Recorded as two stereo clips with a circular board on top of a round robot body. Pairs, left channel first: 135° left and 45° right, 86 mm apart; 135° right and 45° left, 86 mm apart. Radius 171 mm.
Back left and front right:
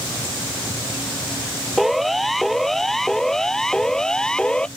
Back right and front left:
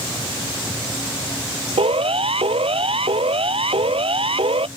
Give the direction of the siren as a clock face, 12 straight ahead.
10 o'clock.